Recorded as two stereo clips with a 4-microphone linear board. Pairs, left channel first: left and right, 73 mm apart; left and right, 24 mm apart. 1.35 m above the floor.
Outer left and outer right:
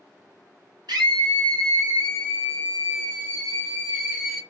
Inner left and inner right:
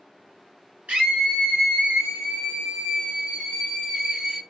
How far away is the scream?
About 2.5 m.